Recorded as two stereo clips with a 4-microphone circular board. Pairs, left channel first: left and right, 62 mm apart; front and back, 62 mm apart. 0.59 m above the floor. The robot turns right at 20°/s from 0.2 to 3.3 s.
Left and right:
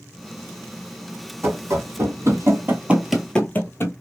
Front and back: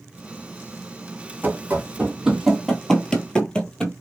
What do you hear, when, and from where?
1.4 s running footsteps: 125° right, 1.4 m; by 3.9 s 75° left, 0.8 m